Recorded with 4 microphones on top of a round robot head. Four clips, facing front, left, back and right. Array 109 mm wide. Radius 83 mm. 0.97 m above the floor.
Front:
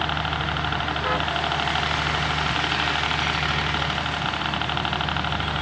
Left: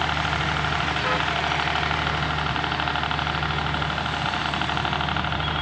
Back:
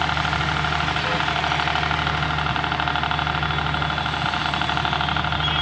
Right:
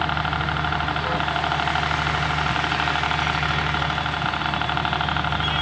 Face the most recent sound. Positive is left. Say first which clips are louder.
# right 1 dB, back 3 dB
turn(degrees=-145)